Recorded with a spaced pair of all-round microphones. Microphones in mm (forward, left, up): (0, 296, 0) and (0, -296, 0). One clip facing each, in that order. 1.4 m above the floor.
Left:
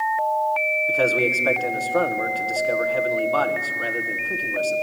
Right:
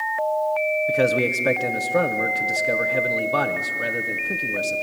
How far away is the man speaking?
About 1.2 m.